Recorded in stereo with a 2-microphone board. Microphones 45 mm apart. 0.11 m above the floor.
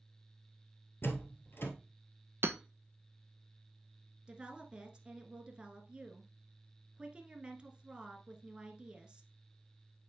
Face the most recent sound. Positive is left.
turn(degrees=-20)  # may be behind; listen again after turning